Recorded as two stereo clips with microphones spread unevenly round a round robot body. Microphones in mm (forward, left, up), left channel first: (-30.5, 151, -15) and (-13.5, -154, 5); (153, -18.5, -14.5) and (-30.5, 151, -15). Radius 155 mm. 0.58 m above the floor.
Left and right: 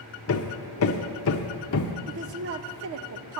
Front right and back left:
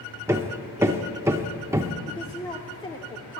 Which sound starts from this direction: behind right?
A woman speaking, at 2.1 s.